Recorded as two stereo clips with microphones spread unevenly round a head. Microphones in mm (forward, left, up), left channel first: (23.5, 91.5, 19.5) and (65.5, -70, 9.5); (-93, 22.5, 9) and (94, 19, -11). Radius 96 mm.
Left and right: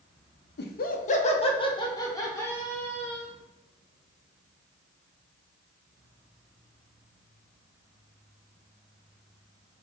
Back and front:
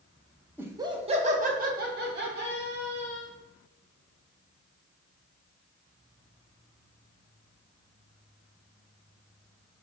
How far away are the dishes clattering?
No dishes clattering in this recording.